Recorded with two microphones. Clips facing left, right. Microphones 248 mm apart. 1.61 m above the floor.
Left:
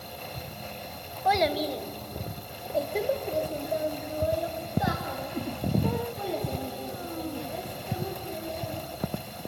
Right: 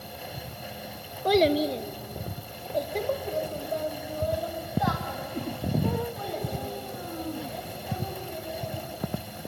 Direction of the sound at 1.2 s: 40° right (ahead or behind).